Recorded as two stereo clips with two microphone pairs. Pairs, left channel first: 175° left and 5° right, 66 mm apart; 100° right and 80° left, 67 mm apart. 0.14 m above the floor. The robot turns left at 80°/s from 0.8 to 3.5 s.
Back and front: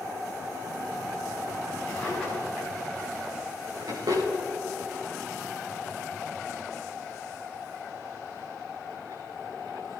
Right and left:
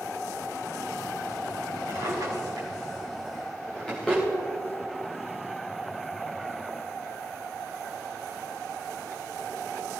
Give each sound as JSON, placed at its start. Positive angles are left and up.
{"t": 1.9, "sound": "a drawer", "azimuth_deg": 110, "distance_m": 7.5}